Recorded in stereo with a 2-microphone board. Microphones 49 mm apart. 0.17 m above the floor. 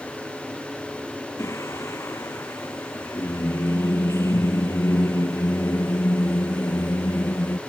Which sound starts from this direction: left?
Singing, at 1.4 s.